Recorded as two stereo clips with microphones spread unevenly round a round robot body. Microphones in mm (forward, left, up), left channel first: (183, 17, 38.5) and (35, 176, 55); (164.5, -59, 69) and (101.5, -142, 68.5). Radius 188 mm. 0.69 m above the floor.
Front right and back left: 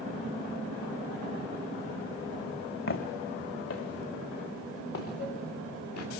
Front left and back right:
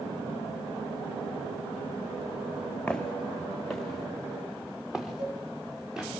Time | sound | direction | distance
2.9 | footsteps | 25° right | 3.5 m
5.2 | a cowbell | 80° right | 9.5 m